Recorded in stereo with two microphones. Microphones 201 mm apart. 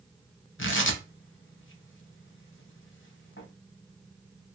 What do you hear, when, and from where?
0.6 s tearing paper: 75° left (ahead or behind), 0.6 m